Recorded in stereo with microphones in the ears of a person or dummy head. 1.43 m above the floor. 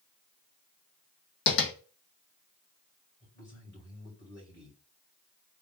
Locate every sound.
1.5 s tapping: 65° left (ahead or behind), 0.9 m
3.2 s a man speaking: 30° left (ahead or behind), 2.5 m